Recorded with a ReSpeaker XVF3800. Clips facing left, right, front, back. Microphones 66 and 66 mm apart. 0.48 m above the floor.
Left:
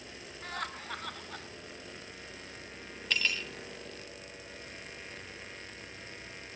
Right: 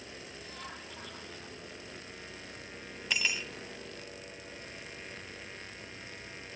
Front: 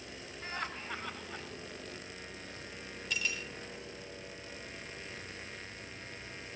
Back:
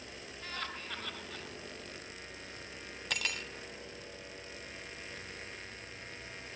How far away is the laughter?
About 3.5 m.